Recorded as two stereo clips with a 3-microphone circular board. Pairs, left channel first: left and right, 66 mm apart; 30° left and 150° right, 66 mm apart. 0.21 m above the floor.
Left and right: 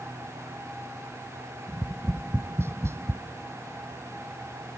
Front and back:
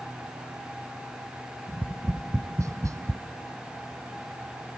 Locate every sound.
1.7 s tapping: 130° right, 0.5 m